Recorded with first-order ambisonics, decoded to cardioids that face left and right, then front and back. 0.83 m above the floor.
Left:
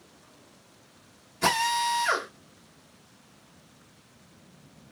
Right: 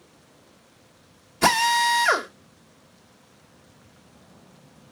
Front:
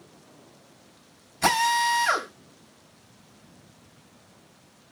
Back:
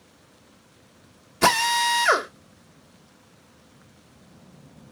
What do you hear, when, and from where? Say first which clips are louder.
1.4 s a drill: right 6 dB, back 2 dB; 155° right, 1.0 m